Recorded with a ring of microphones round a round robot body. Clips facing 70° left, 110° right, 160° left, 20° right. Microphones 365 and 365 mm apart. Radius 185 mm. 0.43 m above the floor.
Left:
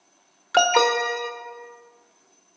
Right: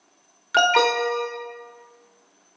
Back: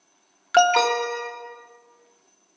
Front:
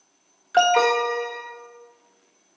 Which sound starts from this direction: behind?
An alarm, at 0.5 s.